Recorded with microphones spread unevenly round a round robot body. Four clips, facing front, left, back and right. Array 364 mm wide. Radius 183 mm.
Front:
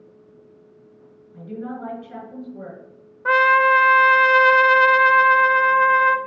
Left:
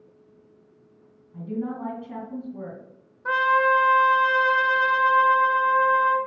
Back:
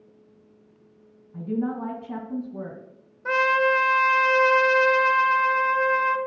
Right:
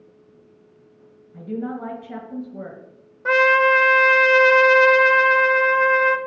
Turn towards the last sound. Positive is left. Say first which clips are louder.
# right 4 dB, front 6 dB
turn(degrees=-60)